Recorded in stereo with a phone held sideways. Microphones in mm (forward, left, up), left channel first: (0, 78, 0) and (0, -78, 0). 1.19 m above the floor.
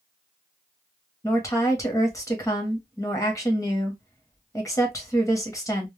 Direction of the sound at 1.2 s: 20° left (ahead or behind).